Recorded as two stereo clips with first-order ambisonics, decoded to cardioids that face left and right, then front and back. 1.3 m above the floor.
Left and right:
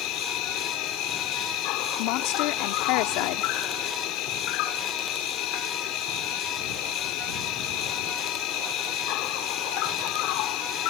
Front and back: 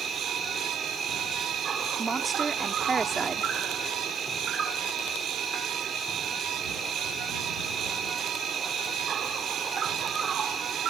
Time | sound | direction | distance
0.0 | an insect | 115° left | ?
2.0 | a woman speaking | 105° left | ?